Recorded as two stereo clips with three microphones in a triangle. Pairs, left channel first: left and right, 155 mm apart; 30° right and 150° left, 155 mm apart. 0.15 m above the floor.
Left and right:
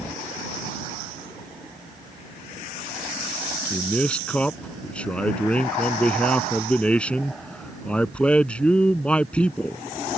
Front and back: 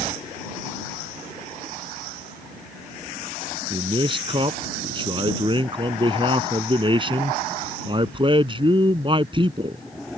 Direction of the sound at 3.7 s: 165° left.